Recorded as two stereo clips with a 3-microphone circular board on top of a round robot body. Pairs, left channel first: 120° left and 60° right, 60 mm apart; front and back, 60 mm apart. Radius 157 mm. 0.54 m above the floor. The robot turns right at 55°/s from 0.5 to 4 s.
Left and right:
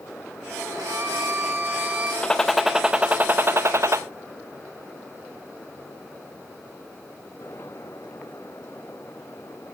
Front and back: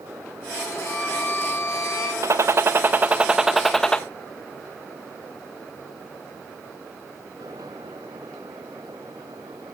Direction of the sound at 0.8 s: 70° right.